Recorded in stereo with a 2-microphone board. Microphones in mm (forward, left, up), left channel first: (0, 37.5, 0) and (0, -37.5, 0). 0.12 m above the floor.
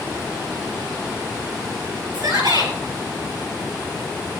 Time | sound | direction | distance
2.1 | a shout | 55° right (ahead or behind) | 3 m